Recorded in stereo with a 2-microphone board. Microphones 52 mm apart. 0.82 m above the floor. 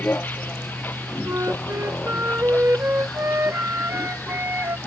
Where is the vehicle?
40° left (ahead or behind).